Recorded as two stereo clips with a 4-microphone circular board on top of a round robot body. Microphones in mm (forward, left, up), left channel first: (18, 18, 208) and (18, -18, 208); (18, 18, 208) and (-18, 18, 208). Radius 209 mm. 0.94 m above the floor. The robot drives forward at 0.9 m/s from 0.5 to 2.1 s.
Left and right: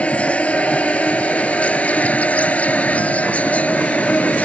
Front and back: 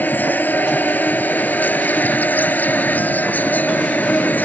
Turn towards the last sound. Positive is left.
turn(degrees=35)